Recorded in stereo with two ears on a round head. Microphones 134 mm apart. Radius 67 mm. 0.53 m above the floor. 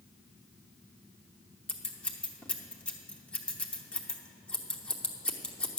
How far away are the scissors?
About 0.9 m.